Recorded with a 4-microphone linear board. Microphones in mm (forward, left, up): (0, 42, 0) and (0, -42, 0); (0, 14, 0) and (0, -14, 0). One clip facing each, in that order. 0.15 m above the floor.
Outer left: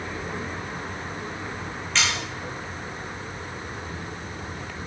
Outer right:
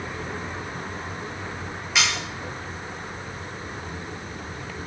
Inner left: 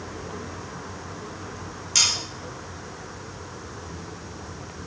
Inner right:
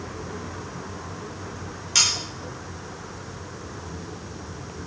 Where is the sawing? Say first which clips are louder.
Outer right 1 dB, even; 10° right (ahead or behind), 5.5 m.